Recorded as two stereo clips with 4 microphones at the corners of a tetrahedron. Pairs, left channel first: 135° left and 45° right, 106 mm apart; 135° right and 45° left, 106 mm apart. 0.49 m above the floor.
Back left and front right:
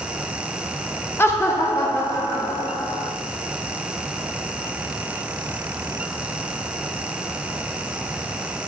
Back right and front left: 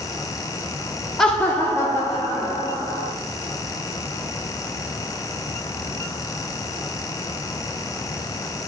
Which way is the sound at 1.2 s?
145° left.